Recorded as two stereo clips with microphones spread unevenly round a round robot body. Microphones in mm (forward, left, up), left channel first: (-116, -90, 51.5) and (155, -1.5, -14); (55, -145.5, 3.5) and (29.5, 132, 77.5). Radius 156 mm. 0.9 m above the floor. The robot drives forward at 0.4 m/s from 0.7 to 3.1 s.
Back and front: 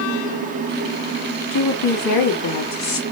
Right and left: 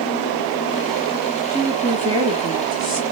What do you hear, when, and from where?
1.5 s a woman speaking: 170° left, 1.8 m; by 3.0 s 175° left, 2.5 m